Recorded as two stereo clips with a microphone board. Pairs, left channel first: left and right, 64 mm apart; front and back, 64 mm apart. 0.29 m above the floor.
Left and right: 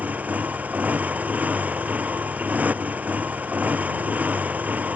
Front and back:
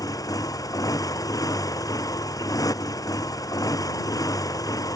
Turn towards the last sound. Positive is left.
turn(degrees=-25)